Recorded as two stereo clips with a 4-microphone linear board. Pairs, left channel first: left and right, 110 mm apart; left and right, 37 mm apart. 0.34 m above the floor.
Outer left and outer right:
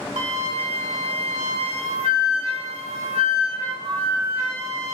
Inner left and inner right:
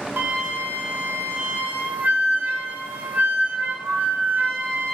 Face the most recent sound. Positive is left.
turn(degrees=-70)  # may be behind; listen again after turning